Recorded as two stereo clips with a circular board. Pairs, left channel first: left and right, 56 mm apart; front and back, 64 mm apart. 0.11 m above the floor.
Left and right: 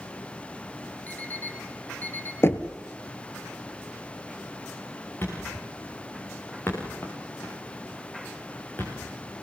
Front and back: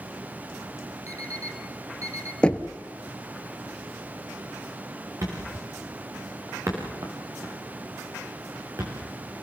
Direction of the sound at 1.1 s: 145° left.